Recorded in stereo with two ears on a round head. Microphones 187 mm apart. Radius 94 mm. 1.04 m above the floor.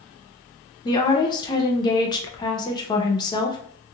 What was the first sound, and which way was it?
A woman speaking, 20° left (ahead or behind).